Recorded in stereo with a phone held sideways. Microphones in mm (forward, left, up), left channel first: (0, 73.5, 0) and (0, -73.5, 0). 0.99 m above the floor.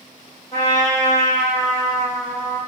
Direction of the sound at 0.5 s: 20° left (ahead or behind).